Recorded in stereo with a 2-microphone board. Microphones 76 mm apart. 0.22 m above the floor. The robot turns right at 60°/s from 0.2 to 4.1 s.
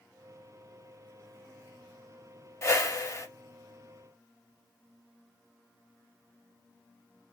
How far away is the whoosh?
About 0.6 m.